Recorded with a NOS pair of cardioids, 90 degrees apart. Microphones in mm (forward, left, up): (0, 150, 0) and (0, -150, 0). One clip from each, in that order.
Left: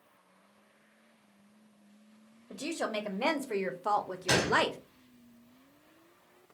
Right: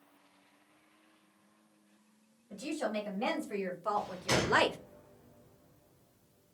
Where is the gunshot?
35° left, 1.1 m.